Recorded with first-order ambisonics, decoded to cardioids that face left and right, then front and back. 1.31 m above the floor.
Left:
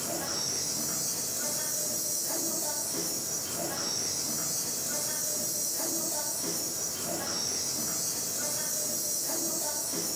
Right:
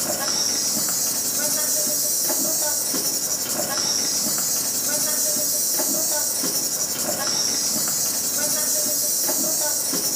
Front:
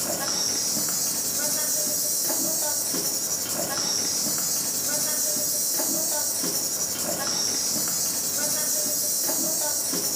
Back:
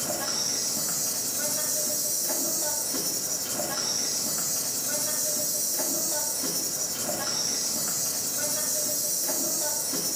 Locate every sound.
0.0 s an insect: 70° right, 1.2 m